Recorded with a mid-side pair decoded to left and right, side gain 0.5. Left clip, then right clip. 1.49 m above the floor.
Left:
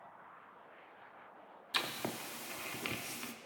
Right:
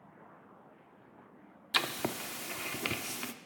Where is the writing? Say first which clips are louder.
Right 5 dB; 35° right, 0.5 m.